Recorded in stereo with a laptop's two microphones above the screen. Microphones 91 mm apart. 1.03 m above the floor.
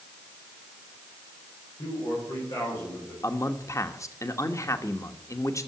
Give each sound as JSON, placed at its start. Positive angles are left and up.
{"t": 1.8, "sound": "a man speaking", "side_deg": 60, "distance_m": 5.0}
{"t": 3.2, "sound": "a man speaking", "side_deg": 35, "distance_m": 1.2}